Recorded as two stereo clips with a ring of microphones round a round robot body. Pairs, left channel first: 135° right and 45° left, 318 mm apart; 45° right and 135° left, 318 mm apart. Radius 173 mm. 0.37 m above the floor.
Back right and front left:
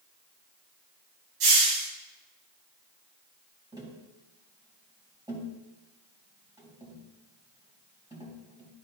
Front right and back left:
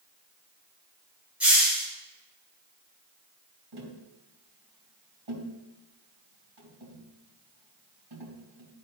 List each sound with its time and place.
1.4 s a hiss: 50° left, 3.5 m
3.7 s tapping: 125° left, 3.5 m